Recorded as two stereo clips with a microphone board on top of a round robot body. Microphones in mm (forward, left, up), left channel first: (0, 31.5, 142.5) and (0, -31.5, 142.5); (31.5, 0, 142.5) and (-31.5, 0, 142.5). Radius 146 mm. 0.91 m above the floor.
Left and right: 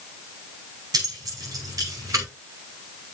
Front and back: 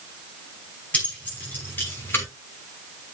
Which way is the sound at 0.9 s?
70° right.